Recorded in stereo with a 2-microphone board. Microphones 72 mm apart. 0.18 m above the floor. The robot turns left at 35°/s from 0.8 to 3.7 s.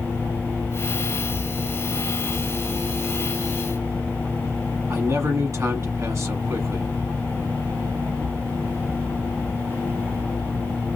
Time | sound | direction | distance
4.9 | a man speaking | 45° right (ahead or behind) | 1.3 m